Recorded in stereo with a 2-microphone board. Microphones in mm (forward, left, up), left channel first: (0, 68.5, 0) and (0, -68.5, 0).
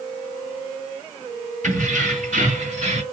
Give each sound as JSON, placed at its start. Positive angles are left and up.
{"t": 1.6, "sound": "keys jangling", "side_deg": -75, "distance_m": 2.0}